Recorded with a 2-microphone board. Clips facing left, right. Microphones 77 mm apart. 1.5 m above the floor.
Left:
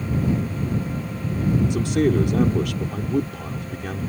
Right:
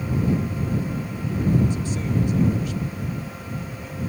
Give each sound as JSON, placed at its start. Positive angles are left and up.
{"t": 1.7, "sound": "a man speaking", "side_deg": 80}